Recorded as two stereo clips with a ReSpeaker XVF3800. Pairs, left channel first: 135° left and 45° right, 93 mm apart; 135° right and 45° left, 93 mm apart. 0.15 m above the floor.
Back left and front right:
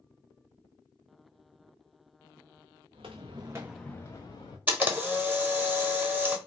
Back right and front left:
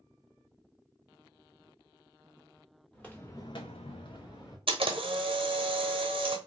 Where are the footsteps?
55° right, 1.0 m; by 4.6 s 175° left, 1.3 m.